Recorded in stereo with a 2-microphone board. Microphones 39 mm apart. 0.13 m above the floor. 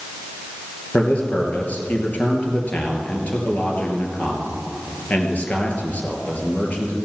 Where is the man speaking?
40° left (ahead or behind), 2.5 m.